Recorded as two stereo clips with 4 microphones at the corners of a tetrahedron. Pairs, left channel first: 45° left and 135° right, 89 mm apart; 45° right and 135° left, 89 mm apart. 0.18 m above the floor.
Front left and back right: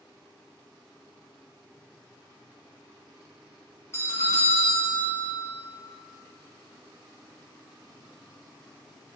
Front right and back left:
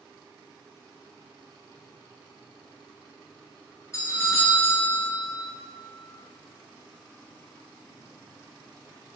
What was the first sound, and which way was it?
A doorbell, 5° right.